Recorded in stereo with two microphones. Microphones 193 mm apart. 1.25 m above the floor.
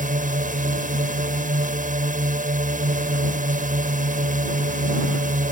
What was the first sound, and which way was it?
A drone, 40° right (ahead or behind).